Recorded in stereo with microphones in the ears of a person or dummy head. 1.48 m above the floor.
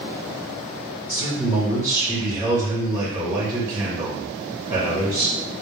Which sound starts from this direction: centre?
A man speaking, at 1.1 s.